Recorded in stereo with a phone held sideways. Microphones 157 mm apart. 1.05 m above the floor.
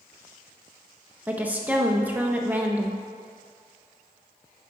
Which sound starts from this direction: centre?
A woman speaking, at 1.3 s.